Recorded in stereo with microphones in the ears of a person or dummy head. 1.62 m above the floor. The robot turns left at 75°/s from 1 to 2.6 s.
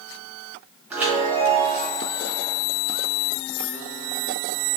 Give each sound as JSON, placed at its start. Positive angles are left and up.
{"t": 0.9, "sound": "a chime", "azimuth_deg": -5, "distance_m": 1.6}